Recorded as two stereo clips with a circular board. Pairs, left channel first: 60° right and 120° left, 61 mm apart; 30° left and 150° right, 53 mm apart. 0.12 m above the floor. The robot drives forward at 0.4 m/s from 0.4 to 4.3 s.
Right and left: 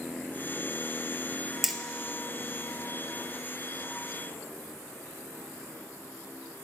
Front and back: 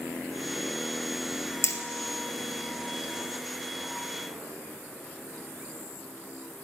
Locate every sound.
1.6 s hammering: 30° left, 1.2 m